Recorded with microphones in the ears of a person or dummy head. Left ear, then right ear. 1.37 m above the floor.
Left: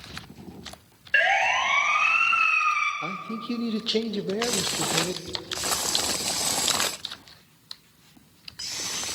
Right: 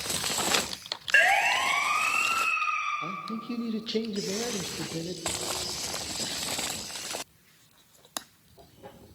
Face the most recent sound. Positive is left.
turn(degrees=20)  # may be behind; listen again after turning